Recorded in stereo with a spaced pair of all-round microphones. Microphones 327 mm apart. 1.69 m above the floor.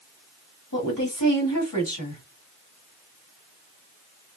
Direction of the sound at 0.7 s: 80° left.